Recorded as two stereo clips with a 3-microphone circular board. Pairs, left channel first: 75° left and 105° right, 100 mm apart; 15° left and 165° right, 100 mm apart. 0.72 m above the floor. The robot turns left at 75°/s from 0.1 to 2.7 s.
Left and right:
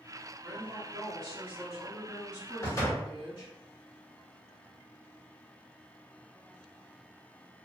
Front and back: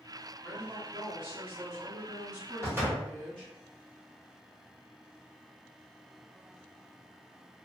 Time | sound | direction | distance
0.4 | a woman speaking | 90° right | 1.9 m
2.6 | a door slam | 135° left | 1.4 m